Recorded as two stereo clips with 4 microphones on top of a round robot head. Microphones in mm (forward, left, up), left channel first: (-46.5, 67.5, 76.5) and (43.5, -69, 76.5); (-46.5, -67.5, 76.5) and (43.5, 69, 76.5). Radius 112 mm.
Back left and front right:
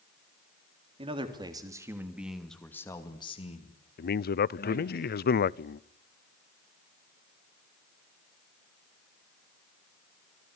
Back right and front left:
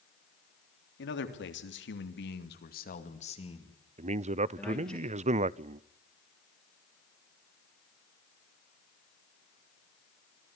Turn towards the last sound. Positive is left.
turn(degrees=105)